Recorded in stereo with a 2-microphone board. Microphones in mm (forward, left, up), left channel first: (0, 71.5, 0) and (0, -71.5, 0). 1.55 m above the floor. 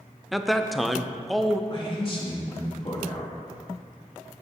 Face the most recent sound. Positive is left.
turn(degrees=40)  # may be behind; listen again after turning